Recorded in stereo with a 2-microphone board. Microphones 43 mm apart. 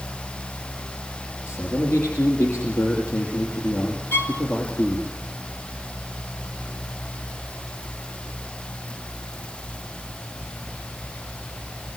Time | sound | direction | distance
1.5 | a man speaking | 75° left (ahead or behind) | 6 m
4.1 | a violin | 70° left (ahead or behind) | 2.5 m